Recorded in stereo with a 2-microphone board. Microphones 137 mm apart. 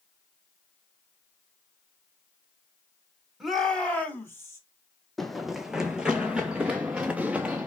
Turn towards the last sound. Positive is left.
turn(degrees=-10)  # may be behind; listen again after turning